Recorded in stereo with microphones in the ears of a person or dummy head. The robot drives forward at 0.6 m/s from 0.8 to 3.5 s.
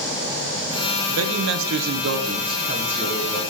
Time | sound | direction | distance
1.1 | a man speaking | 85° right | 0.9 m